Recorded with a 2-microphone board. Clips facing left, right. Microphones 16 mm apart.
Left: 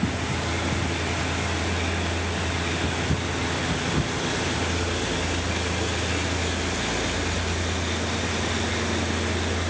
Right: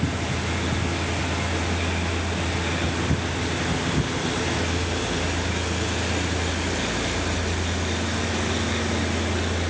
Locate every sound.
Only background noise.